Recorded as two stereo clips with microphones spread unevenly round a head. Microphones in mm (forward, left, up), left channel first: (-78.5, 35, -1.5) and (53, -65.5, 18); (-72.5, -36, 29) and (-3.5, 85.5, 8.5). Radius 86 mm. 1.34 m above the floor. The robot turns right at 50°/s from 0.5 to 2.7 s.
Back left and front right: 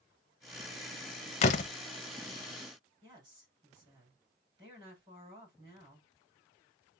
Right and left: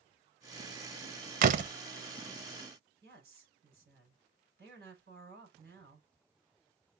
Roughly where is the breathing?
I don't hear breathing.